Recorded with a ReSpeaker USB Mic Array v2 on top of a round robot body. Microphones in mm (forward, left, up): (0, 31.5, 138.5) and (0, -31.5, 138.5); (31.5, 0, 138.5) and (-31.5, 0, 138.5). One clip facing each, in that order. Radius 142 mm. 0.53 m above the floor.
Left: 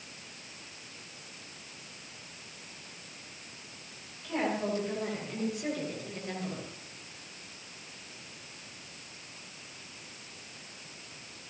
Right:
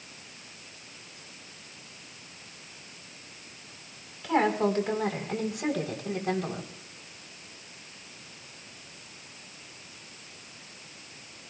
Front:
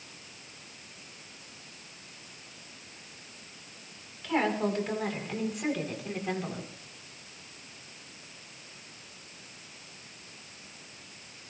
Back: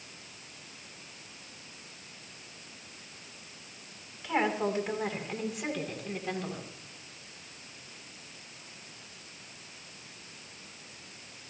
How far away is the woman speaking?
About 5 m.